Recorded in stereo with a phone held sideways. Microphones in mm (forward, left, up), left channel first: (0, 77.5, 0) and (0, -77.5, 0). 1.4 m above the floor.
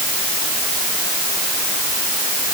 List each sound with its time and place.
Only background noise.